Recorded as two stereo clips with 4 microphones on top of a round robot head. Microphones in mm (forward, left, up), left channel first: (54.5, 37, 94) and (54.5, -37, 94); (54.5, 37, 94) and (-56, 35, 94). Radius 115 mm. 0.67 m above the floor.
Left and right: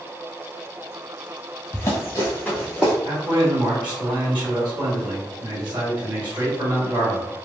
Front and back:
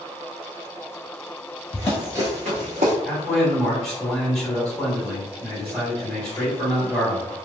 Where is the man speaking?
80° right, 1.8 m.